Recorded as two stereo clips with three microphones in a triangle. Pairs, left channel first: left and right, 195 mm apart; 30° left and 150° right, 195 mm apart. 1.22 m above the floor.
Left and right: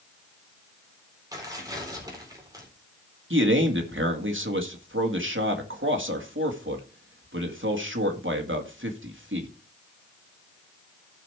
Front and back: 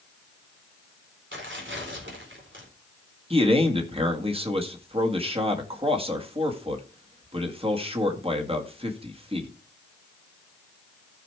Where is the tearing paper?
160° right, 4 m.